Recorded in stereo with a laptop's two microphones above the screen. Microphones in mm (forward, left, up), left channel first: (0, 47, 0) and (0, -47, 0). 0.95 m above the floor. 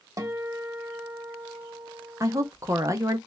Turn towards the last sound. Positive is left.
turn(degrees=-35)  # may be behind; listen again after turning